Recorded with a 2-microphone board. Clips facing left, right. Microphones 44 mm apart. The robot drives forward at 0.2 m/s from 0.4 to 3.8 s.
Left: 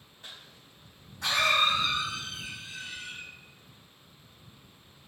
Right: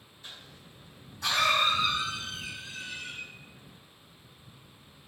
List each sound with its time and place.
0.2 s a cough: 65° left (ahead or behind), 1.8 m; by 3.2 s 70° left (ahead or behind), 1.8 m